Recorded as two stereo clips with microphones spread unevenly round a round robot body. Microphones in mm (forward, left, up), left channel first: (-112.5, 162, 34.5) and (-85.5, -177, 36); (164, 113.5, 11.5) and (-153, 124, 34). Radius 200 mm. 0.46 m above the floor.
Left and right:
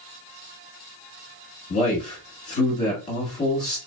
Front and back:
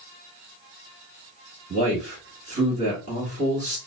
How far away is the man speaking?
About 1.3 m.